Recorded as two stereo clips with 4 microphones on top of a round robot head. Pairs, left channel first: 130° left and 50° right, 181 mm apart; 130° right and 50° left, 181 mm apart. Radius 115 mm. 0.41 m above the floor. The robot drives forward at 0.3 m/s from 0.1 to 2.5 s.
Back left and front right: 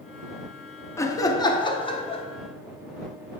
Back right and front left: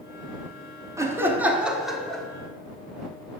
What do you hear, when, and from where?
1.0 s laughter: 90° left, 0.7 m; by 2.2 s 150° left, 0.8 m